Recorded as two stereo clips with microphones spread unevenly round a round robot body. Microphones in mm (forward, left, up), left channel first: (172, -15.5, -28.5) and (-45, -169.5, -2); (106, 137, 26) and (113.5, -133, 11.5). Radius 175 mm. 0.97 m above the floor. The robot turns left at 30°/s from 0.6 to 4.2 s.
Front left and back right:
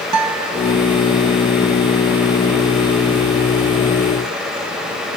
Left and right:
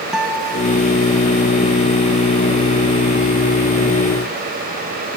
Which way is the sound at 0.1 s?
175° right.